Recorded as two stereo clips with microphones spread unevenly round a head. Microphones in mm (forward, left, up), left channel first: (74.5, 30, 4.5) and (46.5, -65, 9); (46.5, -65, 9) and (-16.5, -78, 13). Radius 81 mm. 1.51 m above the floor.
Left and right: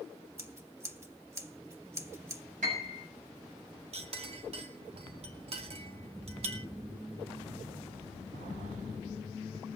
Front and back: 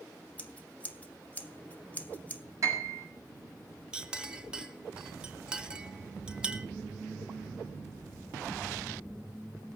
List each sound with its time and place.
0.4 s scissors: 55° right, 1.9 m
2.6 s a piano: 135° right, 7 m
3.9 s a clink: 95° right, 1.8 m